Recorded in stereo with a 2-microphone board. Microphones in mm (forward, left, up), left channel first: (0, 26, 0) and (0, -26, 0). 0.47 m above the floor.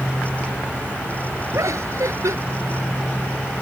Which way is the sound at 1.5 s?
70° right (ahead or behind).